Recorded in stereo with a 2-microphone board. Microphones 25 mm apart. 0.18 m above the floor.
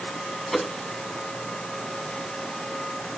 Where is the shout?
I don't hear a shout.